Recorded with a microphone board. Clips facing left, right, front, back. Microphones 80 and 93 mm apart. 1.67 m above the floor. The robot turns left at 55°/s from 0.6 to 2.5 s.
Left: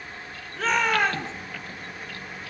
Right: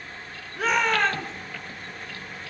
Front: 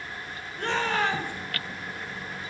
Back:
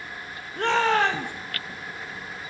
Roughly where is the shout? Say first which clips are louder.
Even, back 6 dB; behind.